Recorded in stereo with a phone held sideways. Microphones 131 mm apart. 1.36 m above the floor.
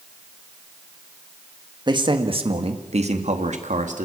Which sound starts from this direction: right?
A man speaking, at 1.9 s.